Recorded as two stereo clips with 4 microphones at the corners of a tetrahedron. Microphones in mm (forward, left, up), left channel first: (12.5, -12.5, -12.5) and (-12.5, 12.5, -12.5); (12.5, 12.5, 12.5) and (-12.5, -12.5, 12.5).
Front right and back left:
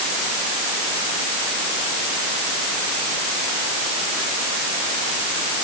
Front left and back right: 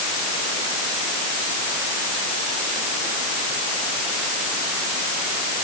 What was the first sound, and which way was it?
Only background noise.